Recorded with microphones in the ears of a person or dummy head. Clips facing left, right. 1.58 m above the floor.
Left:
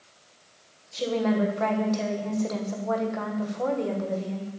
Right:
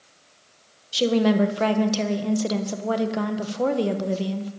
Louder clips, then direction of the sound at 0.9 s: Right 5 dB; 45° right (ahead or behind).